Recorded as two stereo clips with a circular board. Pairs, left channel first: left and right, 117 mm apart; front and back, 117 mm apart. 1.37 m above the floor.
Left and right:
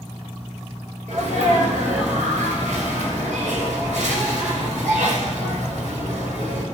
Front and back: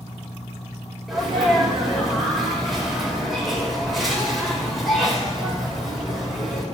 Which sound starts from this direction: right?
A sneeze, at 1.1 s.